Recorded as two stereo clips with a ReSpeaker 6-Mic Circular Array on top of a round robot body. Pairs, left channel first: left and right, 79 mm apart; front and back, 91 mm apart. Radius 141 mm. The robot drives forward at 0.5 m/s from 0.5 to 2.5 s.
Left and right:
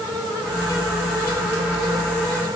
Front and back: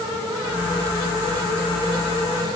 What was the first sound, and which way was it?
Only background noise.